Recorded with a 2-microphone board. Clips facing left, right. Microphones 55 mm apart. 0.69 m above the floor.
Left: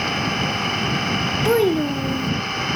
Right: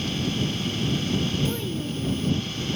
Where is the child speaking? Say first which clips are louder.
Left 12 dB; 60° left (ahead or behind).